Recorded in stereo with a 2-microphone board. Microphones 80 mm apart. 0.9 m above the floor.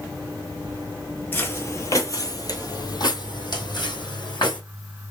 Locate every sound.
1.3 s footsteps: 25° left (ahead or behind), 1.0 m; by 4.6 s 65° left (ahead or behind), 2 m